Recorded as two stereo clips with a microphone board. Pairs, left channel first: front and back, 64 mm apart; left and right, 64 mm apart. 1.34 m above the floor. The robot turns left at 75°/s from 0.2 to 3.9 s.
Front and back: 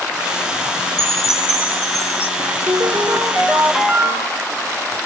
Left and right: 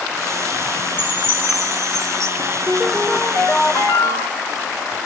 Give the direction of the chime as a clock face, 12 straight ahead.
1 o'clock.